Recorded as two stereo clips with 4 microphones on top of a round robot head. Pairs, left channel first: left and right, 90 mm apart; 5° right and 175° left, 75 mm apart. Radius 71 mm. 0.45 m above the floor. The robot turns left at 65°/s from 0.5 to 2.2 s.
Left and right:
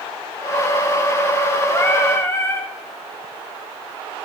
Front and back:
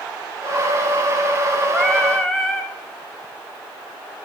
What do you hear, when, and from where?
1.7 s singing: 100° left, 1.1 m; by 2.7 s 70° left, 1.1 m